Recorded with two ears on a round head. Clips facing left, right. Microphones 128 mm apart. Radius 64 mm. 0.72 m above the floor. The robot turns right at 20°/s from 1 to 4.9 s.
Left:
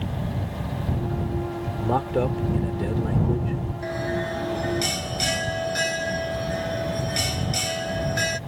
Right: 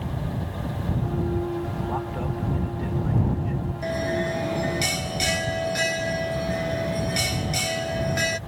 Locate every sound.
1.8 s a man speaking: 90° left; by 3.6 s 125° left
3.8 s a bell: 25° right (ahead or behind); by 8.4 s 5° right (ahead or behind)